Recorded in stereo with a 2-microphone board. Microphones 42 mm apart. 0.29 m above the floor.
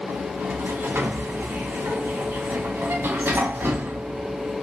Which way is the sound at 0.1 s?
65° right (ahead or behind).